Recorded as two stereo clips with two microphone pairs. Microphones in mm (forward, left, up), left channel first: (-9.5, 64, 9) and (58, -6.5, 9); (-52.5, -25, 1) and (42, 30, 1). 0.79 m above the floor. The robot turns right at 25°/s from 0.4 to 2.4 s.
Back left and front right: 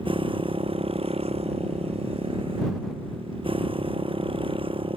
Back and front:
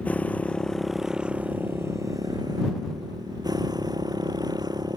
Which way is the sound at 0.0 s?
70° right.